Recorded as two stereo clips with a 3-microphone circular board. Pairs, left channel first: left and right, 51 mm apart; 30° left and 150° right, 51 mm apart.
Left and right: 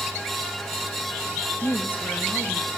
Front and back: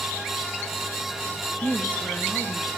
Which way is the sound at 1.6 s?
95° left.